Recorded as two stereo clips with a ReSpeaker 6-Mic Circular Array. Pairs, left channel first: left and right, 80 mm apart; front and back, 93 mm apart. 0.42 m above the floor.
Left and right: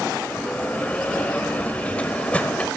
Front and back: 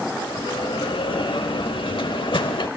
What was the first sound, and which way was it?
A bell, 15° left.